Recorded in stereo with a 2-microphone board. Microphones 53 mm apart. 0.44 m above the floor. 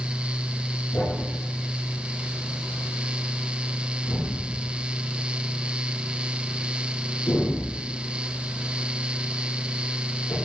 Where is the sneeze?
I don't hear a sneeze.